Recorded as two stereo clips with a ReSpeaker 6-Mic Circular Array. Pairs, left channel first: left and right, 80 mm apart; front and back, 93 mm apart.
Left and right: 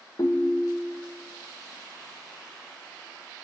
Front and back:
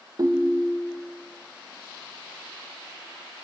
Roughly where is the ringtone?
Behind left.